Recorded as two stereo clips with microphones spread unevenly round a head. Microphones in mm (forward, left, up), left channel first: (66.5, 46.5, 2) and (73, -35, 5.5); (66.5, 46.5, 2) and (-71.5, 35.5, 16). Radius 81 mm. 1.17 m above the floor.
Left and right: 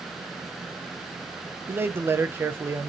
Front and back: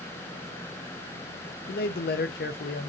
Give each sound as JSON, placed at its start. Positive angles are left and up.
{"t": 1.7, "sound": "a man speaking", "azimuth_deg": -20, "distance_m": 0.6}